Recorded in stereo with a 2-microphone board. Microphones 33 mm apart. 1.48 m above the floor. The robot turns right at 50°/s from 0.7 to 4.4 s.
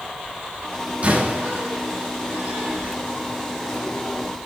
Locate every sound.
1.0 s a door slam: 40° right (ahead or behind), 8 m; by 4.3 s 25° left (ahead or behind), 8 m